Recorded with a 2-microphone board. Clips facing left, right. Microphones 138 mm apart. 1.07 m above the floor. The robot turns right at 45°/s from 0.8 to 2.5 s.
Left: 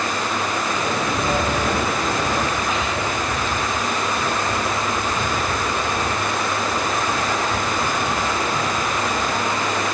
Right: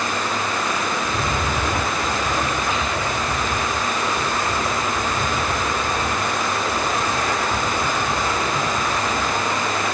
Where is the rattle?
75° right, 3 m; by 9.4 s 10° right, 3 m.